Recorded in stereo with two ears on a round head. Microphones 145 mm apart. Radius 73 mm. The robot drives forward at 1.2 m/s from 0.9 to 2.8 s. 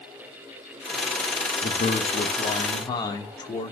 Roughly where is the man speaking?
Left.